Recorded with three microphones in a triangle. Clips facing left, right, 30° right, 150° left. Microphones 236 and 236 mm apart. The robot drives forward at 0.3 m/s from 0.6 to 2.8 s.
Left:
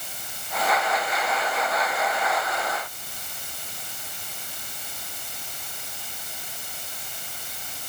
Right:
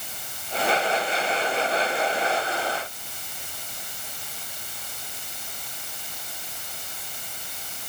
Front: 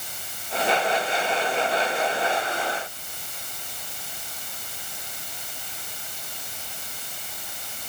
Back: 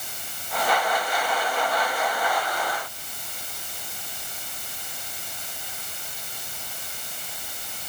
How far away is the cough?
I don't hear a cough.